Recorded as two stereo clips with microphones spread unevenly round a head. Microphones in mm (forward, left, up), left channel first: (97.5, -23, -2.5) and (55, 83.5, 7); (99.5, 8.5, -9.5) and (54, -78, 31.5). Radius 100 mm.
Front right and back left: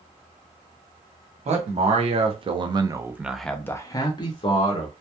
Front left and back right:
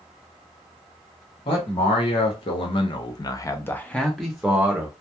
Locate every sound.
1.4 s a man speaking: 90° left, 1.1 m; by 4.9 s 35° right, 1.0 m